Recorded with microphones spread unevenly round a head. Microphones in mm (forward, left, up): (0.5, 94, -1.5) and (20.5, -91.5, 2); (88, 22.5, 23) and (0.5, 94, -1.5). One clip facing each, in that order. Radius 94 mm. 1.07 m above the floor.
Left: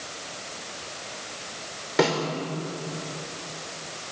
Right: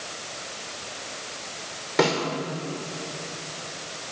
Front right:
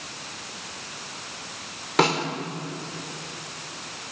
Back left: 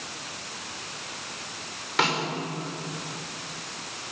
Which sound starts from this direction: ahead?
A snare drum, at 2.0 s.